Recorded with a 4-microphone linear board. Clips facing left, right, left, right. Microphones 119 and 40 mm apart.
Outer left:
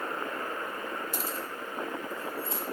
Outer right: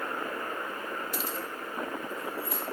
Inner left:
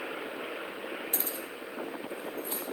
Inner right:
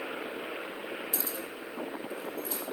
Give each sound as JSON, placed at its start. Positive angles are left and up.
{"t": 1.1, "sound": "keys jangling", "side_deg": 45, "distance_m": 1.7}